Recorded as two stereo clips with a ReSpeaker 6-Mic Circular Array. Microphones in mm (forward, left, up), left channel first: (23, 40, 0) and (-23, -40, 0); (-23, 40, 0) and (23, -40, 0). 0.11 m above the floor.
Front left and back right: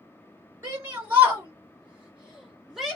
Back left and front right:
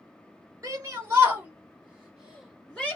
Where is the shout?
75° right, 1.7 m; by 3.0 s 155° left, 1.4 m.